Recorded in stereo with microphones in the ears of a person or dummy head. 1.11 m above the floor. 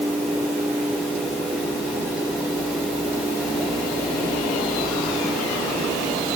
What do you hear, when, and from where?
Only background noise.